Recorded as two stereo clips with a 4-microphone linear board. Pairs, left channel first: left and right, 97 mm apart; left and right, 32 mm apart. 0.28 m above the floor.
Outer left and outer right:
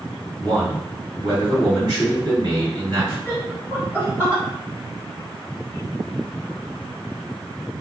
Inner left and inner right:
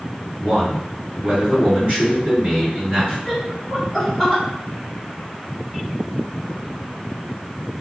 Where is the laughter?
20° right (ahead or behind), 1.5 m.